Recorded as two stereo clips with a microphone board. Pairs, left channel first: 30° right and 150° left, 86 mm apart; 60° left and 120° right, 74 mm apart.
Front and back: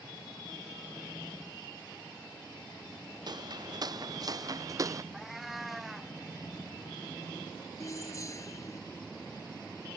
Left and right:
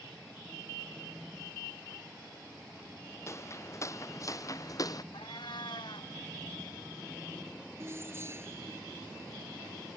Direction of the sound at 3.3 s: 115° left.